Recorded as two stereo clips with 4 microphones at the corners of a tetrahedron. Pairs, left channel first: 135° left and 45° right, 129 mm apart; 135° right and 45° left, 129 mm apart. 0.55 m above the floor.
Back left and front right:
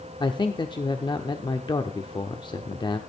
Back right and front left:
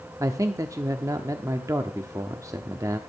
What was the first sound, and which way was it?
A man speaking, 100° left.